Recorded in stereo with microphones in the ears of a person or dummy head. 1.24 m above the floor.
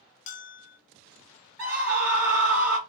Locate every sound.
0.3 s a bell: 35° left (ahead or behind), 0.6 m
1.6 s a scream: 5° right (ahead or behind), 2.5 m